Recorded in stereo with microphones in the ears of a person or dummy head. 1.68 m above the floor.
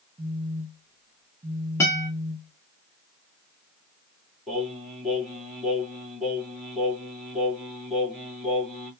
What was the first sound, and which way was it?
A phone buzzing, 25° right (ahead or behind).